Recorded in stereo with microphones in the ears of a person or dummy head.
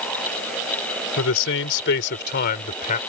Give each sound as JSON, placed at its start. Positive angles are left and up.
{"t": 1.2, "sound": "a man speaking", "side_deg": 65}